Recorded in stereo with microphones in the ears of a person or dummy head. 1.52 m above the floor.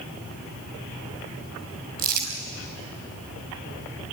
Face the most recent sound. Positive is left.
turn(degrees=-55)  # may be behind; listen again after turning